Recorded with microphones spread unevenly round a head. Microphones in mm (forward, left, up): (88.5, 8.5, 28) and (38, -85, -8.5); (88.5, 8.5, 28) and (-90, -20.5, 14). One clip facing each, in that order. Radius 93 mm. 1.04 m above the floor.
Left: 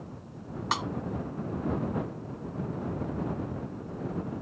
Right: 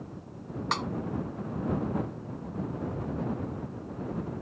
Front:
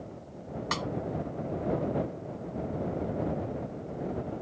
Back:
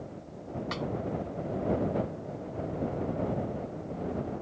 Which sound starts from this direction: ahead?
A snare drum, at 0.7 s.